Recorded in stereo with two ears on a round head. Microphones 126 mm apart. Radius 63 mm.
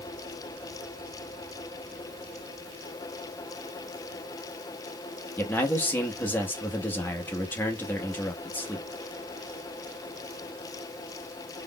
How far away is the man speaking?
About 0.8 m.